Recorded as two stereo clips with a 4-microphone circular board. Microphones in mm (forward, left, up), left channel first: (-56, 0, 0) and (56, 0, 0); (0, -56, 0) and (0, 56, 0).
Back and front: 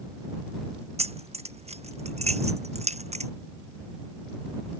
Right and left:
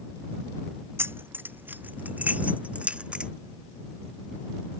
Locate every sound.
1.0 s keys jangling: 20° left; by 3.3 s 10° left